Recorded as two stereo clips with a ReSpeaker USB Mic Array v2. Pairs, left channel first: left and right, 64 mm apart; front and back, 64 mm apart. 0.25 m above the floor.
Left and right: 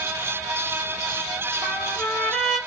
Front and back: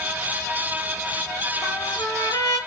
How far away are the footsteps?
I don't hear footsteps.